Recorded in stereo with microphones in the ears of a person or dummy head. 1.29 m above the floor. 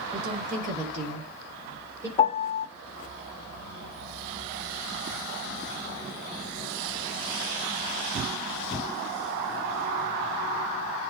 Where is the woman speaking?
50° right (ahead or behind), 3.5 m; by 2.1 s 20° right (ahead or behind), 3 m.